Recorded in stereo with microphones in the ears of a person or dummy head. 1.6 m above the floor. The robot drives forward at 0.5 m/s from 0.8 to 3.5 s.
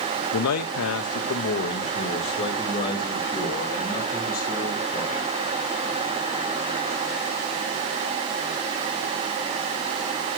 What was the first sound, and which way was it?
A man speaking, 80° left.